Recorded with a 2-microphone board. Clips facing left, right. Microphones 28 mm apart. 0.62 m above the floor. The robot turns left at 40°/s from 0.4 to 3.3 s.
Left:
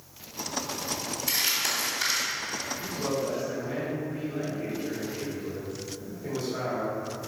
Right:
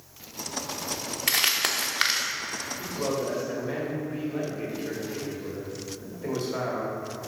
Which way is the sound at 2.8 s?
45° right (ahead or behind).